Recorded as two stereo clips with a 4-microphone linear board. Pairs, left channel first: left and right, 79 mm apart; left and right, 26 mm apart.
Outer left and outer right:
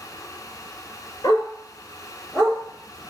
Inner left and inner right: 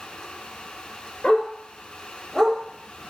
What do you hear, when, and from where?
1.2 s a dog barking: 40° left (ahead or behind), 1.8 m; by 2.6 s centre (ahead or behind), 1.7 m